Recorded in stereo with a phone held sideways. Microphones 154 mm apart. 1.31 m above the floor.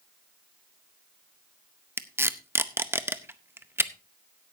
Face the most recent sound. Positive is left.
turn(degrees=-15)  # may be behind; listen again after turning